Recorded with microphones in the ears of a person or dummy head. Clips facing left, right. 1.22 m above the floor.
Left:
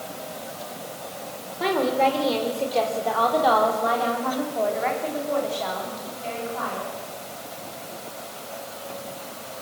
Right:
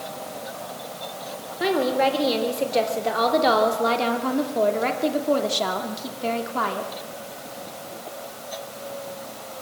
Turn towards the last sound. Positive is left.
turn(degrees=-75)  # may be behind; listen again after turning